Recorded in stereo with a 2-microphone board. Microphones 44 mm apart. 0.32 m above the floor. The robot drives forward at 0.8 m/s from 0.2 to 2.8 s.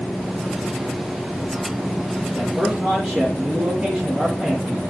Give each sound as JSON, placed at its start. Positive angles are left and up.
{"t": 2.3, "sound": "a man speaking", "side_deg": -35, "distance_m": 3.5}